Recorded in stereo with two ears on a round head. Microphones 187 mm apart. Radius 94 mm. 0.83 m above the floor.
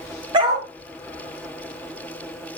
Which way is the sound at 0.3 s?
25° right (ahead or behind).